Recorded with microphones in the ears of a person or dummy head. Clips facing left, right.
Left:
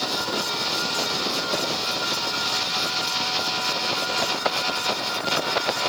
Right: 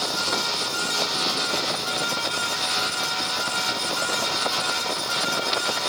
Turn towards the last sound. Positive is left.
No sound to turn to.